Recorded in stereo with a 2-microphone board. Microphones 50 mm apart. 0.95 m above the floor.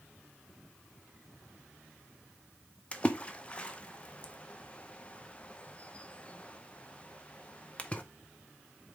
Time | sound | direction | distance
2.9 | a splash | 25° left (ahead or behind) | 0.7 m